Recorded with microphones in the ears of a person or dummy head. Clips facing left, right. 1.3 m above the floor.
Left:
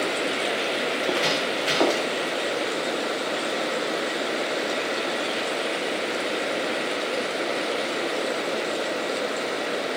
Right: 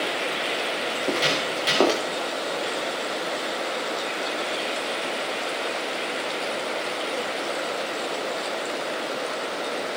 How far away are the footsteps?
About 9.5 m.